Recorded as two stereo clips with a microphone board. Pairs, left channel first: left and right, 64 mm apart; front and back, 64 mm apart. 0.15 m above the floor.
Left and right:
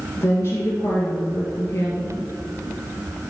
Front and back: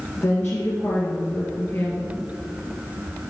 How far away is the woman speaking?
About 2.5 m.